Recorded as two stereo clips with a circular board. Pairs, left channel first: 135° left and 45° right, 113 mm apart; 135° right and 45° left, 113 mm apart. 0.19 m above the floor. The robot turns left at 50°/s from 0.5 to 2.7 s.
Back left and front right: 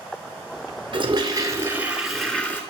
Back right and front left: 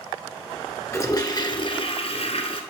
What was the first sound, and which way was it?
A toilet flushing, 75° right.